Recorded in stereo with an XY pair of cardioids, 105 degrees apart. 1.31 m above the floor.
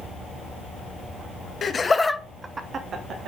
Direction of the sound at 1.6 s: 40° left.